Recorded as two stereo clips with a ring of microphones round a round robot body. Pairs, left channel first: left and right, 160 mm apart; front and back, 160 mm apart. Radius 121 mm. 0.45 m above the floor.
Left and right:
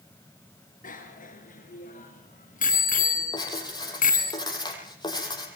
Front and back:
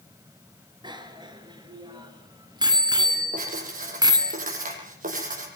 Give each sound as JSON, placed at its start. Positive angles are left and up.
{"t": 0.8, "sound": "a bicycle bell", "azimuth_deg": 120, "distance_m": 5.5}
{"t": 3.3, "sound": "writing", "azimuth_deg": 155, "distance_m": 7.5}